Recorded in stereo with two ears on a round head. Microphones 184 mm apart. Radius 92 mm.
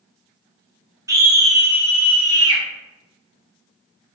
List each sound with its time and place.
1.1 s a scream: 15° right (ahead or behind), 0.7 m; by 2.6 s 20° right (ahead or behind), 1.4 m